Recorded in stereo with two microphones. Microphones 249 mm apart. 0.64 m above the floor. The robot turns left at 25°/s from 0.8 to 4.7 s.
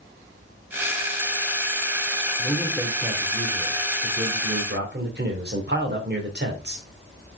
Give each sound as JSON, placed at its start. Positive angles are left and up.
{"t": 2.4, "sound": "a man speaking", "azimuth_deg": 5, "distance_m": 2.5}